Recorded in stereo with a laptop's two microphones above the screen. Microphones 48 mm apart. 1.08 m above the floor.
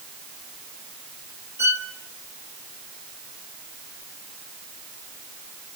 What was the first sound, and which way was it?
A violin, 60° right (ahead or behind).